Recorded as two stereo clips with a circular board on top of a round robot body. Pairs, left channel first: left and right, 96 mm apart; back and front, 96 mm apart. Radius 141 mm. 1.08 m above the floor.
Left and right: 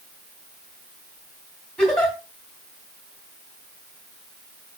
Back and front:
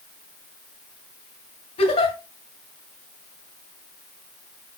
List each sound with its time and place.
1.8 s a giggle: 175° left, 3 m